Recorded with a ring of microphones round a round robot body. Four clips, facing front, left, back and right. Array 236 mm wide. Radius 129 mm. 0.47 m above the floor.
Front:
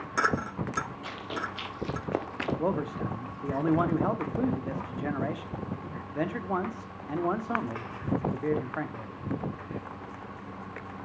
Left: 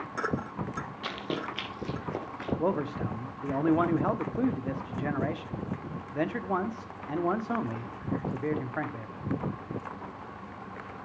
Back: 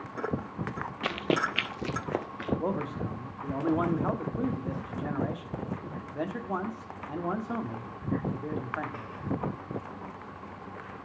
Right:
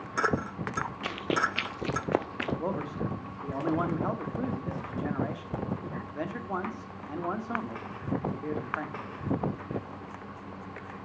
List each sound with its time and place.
1.0 s running footsteps: 165° right, 0.9 m; by 2.5 s 50° right, 0.6 m
2.6 s a man speaking: 60° left, 1.0 m